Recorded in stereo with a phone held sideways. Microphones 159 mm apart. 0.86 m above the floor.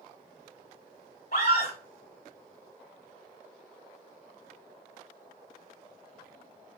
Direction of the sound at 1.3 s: 80° left.